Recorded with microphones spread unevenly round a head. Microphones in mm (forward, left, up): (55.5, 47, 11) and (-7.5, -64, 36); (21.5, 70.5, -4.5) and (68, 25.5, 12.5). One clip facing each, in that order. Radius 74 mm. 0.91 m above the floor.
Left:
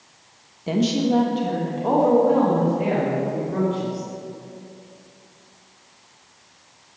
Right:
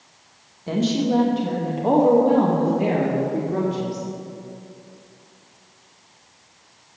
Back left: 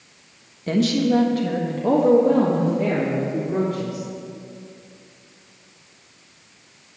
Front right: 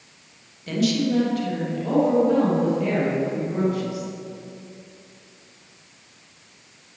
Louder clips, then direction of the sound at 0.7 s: Left 1 dB, back left 3 dB; 120° left.